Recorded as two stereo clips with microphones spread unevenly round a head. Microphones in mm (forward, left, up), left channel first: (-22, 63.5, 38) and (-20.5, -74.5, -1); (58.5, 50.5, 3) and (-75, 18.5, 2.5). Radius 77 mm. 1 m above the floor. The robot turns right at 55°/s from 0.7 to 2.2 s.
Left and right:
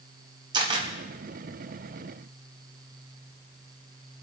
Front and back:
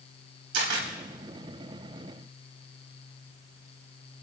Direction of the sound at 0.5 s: 150° right.